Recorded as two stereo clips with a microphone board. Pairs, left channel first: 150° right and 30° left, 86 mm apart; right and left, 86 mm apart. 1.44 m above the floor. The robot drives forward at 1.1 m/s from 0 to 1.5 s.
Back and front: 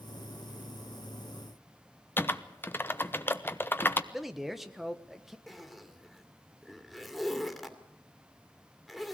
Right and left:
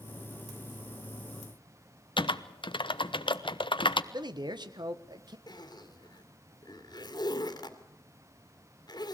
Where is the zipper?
60° right, 2.5 m.